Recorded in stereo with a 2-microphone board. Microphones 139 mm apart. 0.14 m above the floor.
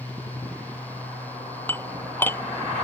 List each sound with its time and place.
1.7 s dishes clattering: 15° left (ahead or behind)